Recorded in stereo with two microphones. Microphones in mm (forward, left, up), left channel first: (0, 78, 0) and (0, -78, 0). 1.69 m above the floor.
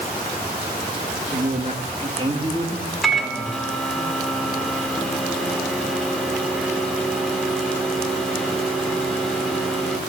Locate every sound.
1.3 s a man speaking: 55° right (ahead or behind), 2.5 m; by 4.0 s 5° right (ahead or behind), 4.5 m
3.0 s a microwave: centre (ahead or behind), 3.5 m